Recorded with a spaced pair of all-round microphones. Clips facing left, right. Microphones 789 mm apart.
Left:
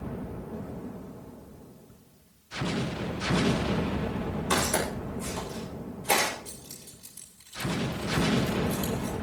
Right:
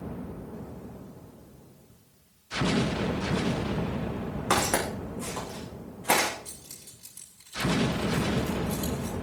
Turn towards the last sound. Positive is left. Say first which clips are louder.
# left 4 dB
turn(degrees=-70)  # may be behind; listen again after turning